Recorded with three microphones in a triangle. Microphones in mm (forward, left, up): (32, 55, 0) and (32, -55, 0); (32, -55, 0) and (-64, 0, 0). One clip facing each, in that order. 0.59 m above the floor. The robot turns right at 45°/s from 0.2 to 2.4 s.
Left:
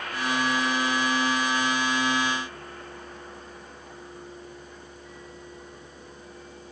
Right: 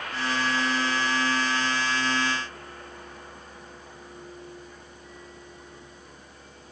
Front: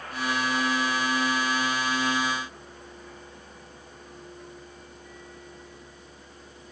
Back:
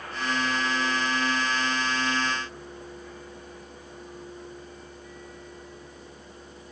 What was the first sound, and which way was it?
Only background noise.